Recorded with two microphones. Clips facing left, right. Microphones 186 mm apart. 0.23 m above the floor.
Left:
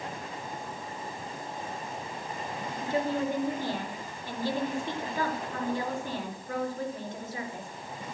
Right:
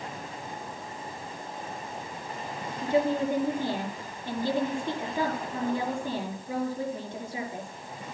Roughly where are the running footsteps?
No running footsteps in this recording.